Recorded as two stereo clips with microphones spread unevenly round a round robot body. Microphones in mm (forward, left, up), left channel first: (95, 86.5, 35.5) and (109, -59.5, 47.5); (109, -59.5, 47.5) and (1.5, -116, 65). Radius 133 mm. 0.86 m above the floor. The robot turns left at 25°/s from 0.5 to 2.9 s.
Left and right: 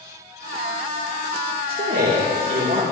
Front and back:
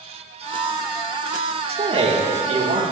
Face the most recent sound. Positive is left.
turn(degrees=-140)